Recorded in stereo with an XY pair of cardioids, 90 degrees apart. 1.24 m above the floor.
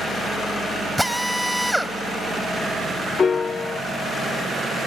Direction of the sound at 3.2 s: 45° left.